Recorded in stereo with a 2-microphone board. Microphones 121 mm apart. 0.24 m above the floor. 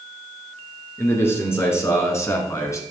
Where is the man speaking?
20° left (ahead or behind), 3 m; by 2.8 s 25° left (ahead or behind), 2 m.